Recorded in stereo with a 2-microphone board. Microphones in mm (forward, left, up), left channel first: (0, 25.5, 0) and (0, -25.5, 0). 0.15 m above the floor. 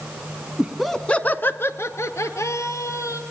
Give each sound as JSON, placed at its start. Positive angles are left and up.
{"t": 0.6, "sound": "laughter", "side_deg": -15, "distance_m": 1.2}